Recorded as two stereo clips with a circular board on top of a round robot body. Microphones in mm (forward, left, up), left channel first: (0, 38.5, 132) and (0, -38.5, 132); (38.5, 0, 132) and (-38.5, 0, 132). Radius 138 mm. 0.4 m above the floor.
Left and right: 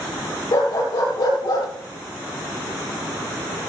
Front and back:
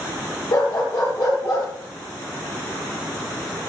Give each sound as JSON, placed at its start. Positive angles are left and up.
{"t": 0.5, "sound": "a dog barking", "azimuth_deg": 40, "distance_m": 6.5}